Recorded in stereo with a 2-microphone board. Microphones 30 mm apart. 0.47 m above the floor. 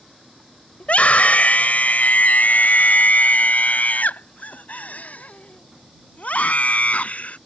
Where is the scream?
50° left (ahead or behind).